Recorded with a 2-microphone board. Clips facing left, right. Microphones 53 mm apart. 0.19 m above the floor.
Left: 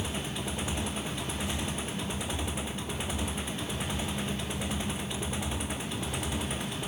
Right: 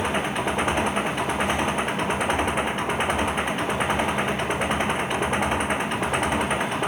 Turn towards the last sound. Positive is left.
turn(degrees=-55)  # may be behind; listen again after turning